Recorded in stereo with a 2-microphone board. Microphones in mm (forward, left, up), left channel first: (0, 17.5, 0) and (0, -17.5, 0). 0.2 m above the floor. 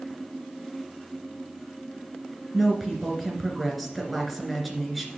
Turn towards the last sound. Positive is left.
turn(degrees=5)  # may be behind; listen again after turning